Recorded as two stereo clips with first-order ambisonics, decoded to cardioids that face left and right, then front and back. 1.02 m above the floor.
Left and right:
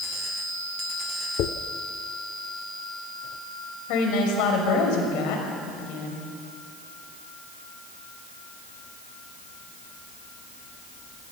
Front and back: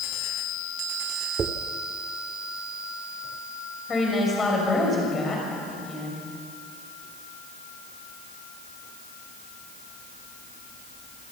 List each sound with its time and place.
1.4 s a dropped coin: 120° left, 1.2 m
3.9 s a woman speaking: 75° left, 6 m